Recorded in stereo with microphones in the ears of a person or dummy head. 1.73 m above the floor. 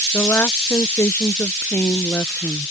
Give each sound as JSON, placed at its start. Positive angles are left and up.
{"t": 0.1, "sound": "a woman speaking", "side_deg": 10}